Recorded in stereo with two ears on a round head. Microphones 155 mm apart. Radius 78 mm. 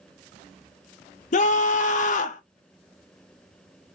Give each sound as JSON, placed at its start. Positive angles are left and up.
{"t": 1.3, "sound": "a scream", "side_deg": 45, "distance_m": 0.7}